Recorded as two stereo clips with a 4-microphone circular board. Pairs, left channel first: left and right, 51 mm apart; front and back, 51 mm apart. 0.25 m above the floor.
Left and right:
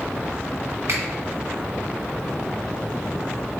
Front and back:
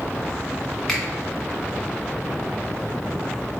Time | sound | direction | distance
0.9 | a finger snap | 85° right | 1.9 m